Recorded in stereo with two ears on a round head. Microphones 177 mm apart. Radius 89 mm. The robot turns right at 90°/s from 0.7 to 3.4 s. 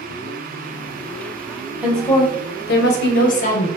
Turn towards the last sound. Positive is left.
turn(degrees=135)